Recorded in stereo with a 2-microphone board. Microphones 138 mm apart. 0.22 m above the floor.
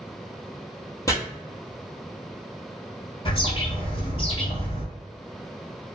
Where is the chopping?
25° left (ahead or behind), 1.0 m.